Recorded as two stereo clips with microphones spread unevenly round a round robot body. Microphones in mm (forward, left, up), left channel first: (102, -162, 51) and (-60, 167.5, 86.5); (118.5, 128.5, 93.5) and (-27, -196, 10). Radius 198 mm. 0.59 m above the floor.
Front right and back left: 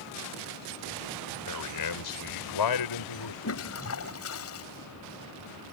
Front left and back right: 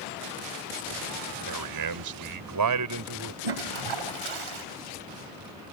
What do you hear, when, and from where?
1.5 s a man speaking: 100° right; by 3.3 s 80° right
3.4 s a toilet flushing: 115° right